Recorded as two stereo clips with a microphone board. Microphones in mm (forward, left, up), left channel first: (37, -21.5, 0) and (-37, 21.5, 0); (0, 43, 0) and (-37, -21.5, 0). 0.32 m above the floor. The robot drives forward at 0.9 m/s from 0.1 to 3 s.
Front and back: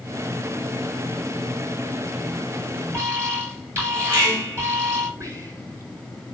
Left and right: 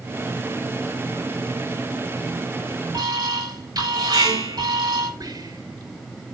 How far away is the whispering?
About 4.5 m.